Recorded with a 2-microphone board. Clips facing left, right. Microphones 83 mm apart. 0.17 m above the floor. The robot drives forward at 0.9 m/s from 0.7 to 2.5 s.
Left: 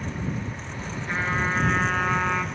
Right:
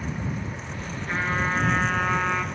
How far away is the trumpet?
About 2.5 m.